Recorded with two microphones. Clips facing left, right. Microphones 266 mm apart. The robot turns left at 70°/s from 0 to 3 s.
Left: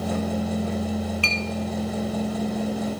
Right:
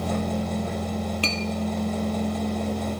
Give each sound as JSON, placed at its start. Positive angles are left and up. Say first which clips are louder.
{"t": 1.2, "sound": "a clink", "louder": "right 1 dB", "side_deg": -45, "distance_m": 2.0}